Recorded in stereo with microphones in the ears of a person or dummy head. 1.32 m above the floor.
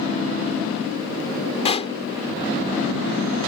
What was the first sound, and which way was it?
A pop, 35° left (ahead or behind).